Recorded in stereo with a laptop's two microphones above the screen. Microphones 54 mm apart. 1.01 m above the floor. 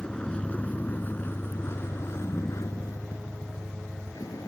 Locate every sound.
0.0 s a vehicle: 10° left (ahead or behind); by 4.5 s 85° left